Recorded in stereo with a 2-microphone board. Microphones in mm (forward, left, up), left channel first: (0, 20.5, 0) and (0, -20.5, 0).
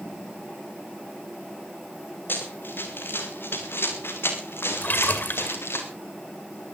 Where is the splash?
55° left (ahead or behind), 2 m.